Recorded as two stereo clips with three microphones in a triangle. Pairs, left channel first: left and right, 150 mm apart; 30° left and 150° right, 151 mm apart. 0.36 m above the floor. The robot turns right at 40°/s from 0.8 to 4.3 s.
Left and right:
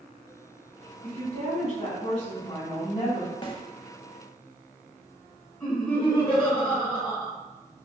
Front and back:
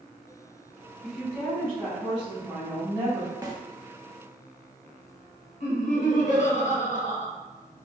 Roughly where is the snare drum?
Behind left.